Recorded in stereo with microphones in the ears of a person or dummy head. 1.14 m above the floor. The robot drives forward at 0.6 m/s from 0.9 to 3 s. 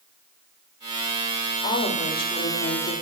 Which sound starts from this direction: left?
A woman speaking, at 1.6 s.